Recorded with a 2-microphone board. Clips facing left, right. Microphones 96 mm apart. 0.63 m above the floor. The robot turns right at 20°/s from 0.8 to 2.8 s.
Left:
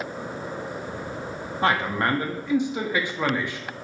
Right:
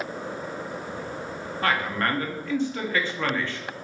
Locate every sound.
1.6 s a man speaking: 20° left (ahead or behind), 0.6 m; by 3.6 s 15° left (ahead or behind), 0.6 m